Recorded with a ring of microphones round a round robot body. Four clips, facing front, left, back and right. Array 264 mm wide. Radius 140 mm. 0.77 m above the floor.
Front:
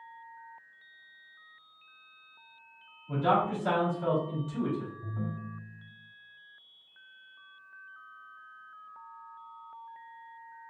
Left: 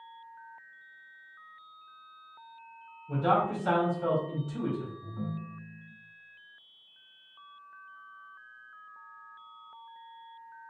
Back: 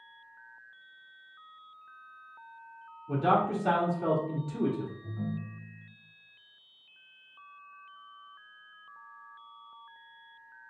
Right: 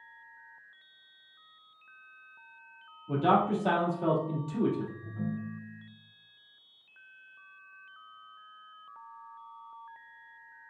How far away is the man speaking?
About 1.6 m.